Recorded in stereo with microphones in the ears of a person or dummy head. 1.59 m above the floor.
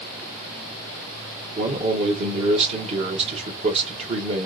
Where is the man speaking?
35° right (ahead or behind), 1.6 m.